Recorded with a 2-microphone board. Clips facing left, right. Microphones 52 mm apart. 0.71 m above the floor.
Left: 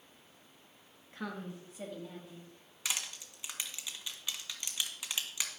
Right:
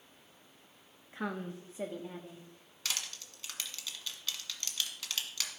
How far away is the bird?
I don't hear a bird.